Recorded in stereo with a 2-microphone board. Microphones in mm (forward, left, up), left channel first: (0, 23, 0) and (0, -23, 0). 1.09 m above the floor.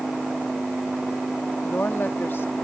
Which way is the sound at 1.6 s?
60° left (ahead or behind).